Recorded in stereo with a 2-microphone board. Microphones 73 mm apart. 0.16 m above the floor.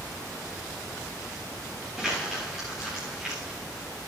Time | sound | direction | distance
2.0 | crumpling | centre (ahead or behind) | 8.5 m